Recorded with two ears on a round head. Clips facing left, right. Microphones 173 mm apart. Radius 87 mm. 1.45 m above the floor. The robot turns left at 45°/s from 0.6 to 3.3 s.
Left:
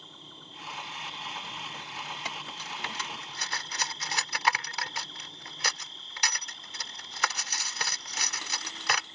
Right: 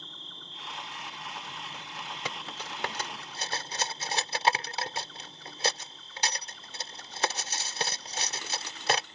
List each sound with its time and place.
0.0 s an insect: 165° left; by 9.2 s 40° left
2.2 s cutlery clinking: 70° right (ahead or behind); by 9.1 s 30° right (ahead or behind)